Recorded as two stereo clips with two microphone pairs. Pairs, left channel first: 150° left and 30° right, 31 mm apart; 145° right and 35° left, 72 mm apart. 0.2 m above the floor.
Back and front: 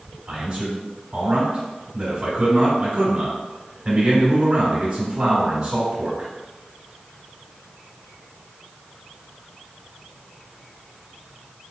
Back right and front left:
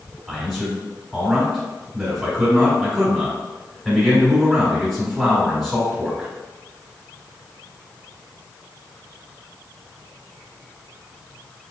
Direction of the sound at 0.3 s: 50° right.